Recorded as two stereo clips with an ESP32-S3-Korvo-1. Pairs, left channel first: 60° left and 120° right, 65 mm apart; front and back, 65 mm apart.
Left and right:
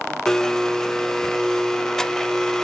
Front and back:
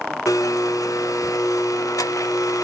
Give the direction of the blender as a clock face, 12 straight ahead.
1 o'clock.